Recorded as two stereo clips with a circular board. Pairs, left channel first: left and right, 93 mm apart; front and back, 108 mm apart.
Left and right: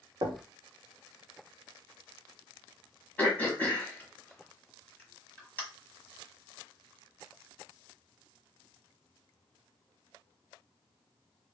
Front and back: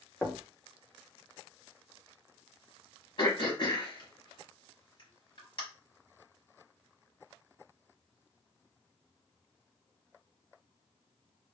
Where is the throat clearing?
20° left, 1.1 m.